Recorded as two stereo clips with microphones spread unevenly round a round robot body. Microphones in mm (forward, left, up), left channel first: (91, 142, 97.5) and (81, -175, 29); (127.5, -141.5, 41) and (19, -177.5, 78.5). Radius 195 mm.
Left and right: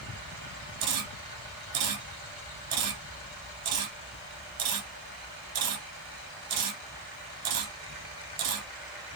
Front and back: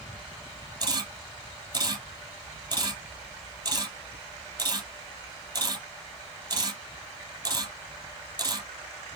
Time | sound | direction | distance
0.8 | a camera shutter | 110° right | 2.5 m